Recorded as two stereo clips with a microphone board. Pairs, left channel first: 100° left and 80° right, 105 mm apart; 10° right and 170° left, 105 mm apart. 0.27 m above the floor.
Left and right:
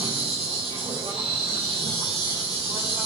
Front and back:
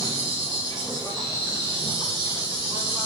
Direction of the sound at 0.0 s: 70° right.